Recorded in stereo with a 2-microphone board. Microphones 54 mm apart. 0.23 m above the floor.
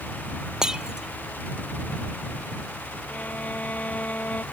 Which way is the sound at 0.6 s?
15° right (ahead or behind).